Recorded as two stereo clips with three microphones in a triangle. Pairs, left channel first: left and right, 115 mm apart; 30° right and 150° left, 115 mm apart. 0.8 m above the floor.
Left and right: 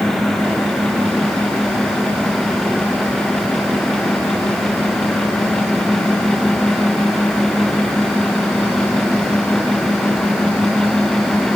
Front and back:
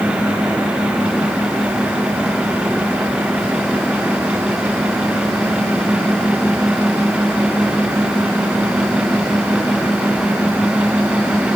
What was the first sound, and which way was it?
Only background noise.